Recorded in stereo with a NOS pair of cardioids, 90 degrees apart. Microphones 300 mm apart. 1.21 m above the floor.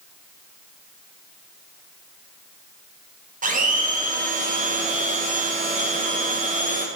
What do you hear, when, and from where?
3.4 s a blender: 30° right, 0.8 m